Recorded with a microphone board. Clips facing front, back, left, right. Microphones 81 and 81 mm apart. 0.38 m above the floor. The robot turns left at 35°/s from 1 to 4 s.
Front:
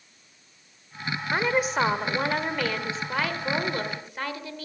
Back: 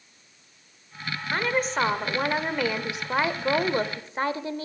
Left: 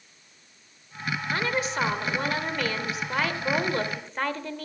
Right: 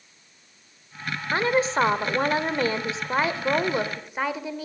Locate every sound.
1.3 s a woman speaking: 65° right, 0.9 m; by 4.7 s 160° right, 0.9 m